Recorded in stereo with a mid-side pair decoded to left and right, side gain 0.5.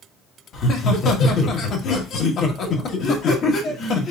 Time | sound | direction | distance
0.5 | laughter | 55° left | 1.5 m